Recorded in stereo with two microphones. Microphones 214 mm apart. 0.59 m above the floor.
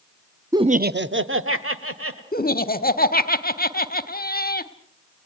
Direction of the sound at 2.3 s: 45° left (ahead or behind).